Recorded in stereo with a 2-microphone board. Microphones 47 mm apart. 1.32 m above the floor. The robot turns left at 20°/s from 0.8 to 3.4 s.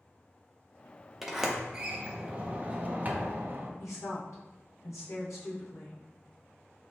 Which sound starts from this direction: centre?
A sliding door, at 1.2 s.